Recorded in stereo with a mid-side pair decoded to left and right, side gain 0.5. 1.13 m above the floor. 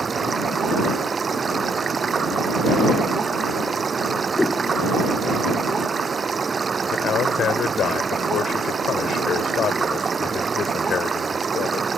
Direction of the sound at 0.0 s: 35° right.